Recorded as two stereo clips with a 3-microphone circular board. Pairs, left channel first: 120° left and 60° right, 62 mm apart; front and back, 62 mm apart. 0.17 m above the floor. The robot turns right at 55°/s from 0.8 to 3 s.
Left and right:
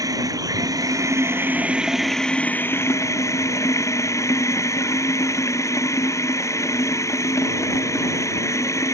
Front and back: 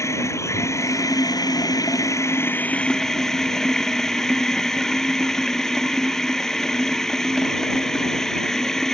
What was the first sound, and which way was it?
Running water, 40° right.